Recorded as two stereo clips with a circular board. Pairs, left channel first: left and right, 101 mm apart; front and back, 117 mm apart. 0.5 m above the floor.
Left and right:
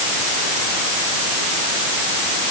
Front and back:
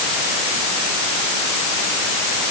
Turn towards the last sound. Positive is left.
No sound to turn to.